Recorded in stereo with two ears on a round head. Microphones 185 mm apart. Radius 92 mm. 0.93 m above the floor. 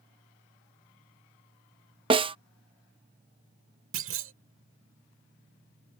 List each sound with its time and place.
2.1 s a snare drum: 25° right (ahead or behind)
3.9 s a clunk: 70° right (ahead or behind)